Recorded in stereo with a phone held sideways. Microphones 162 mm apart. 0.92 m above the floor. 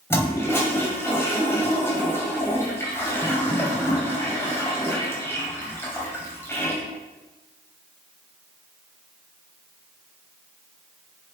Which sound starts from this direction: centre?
A toilet flushing, at 0.1 s.